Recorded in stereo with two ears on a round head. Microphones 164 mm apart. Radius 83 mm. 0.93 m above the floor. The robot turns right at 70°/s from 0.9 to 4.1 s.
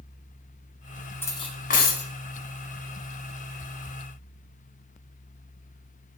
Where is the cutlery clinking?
10° left, 0.7 m; by 2.1 s 75° left, 0.7 m.